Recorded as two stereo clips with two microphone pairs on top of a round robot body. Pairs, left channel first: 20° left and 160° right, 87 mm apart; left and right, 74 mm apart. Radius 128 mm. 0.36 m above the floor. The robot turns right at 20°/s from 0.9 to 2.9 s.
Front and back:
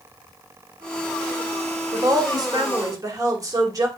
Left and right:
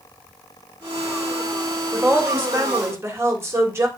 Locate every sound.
1.9 s a woman speaking: 160° right, 2.5 m; by 3.9 s 140° right, 2.5 m